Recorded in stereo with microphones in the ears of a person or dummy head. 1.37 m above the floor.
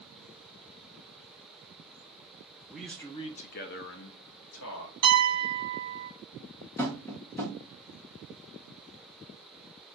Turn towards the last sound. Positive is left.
turn(degrees=10)  # may be behind; listen again after turning